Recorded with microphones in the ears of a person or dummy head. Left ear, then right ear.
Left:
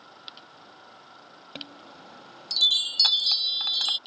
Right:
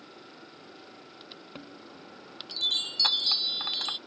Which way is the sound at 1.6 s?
30° left (ahead or behind).